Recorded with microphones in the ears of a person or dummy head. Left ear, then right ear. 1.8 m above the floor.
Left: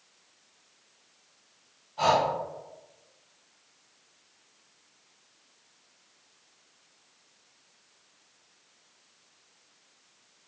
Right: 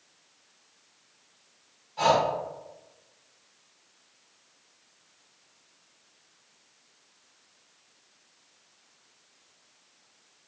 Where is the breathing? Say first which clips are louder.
Right 1 dB; 30° right (ahead or behind), 1.4 m.